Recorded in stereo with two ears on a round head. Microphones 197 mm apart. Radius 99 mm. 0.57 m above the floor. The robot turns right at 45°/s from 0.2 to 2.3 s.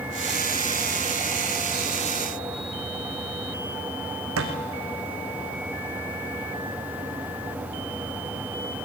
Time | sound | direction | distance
4.4 | a thud | 70° right (ahead or behind) | 2.5 m